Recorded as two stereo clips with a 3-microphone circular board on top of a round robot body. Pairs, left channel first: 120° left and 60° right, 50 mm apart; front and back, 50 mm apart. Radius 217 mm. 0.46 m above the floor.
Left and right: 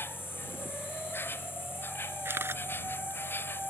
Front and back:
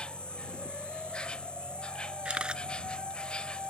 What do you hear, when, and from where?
0.0 s an insect: 70° left
2.2 s a camera shutter: 110° right